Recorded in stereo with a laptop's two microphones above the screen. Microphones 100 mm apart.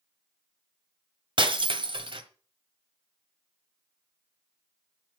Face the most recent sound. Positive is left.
turn(degrees=-60)  # may be behind; listen again after turning